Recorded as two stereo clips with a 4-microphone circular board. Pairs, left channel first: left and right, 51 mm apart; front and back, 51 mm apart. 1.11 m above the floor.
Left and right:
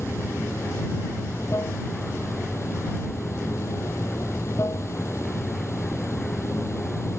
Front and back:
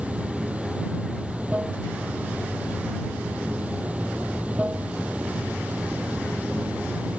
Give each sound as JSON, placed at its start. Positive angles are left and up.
{"t": 0.0, "sound": "running water", "azimuth_deg": 120}